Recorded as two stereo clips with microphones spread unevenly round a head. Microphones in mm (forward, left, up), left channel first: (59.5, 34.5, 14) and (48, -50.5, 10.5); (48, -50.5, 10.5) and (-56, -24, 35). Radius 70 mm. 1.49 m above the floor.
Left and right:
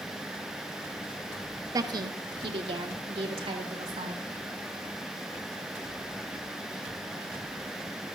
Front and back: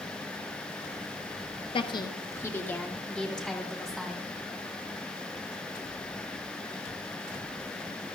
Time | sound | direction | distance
1.7 | a woman speaking | 55° right | 1.0 m